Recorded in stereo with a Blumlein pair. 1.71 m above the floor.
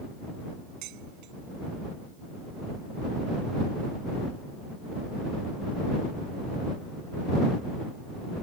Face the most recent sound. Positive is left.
turn(degrees=-40)